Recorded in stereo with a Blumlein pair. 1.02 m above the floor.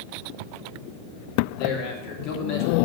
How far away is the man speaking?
About 1.7 m.